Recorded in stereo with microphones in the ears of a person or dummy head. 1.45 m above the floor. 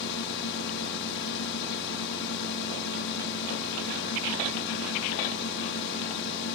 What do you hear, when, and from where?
0.0 s a drone: 60° left (ahead or behind)